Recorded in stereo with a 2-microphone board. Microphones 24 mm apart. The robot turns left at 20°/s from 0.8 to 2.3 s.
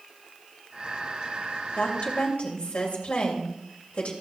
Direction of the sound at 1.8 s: 70° left (ahead or behind).